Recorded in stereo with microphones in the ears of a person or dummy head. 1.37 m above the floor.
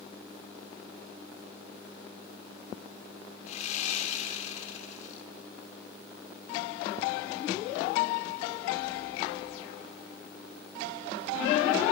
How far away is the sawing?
About 1.2 m.